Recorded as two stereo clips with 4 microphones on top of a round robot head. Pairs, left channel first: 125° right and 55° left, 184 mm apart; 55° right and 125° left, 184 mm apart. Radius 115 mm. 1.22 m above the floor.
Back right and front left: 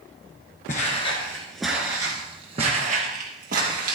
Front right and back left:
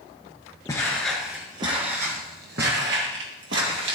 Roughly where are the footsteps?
Behind right.